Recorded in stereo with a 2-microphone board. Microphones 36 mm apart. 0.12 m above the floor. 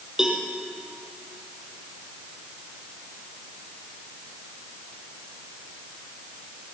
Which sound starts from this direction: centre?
A cowbell, at 0.2 s.